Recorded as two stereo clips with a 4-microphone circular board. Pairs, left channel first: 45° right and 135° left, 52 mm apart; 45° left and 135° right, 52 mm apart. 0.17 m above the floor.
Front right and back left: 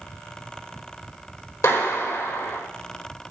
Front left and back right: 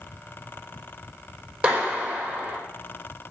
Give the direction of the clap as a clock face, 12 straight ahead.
2 o'clock.